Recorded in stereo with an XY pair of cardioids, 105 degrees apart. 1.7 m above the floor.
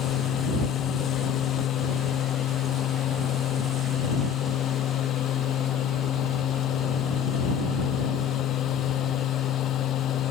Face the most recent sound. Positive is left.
turn(degrees=70)